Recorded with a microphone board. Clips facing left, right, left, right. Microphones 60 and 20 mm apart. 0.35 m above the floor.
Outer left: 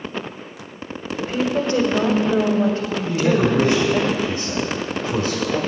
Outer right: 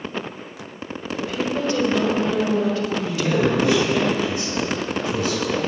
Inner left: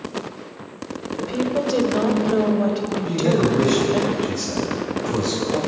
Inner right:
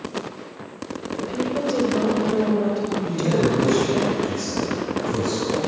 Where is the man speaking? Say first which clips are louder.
Outer left 4 dB, inner left 3 dB; 45° left (ahead or behind), 1.9 m.